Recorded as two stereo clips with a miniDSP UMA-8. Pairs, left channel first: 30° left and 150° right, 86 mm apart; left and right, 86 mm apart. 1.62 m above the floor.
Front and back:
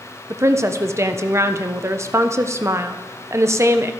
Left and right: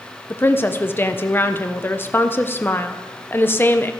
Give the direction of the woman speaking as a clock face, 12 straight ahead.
7 o'clock.